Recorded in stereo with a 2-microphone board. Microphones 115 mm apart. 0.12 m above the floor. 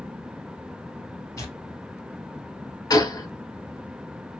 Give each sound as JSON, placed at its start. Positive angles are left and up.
{"t": 1.4, "sound": "tearing paper", "side_deg": 25, "distance_m": 1.4}
{"t": 2.9, "sound": "a gunshot", "side_deg": 35, "distance_m": 0.9}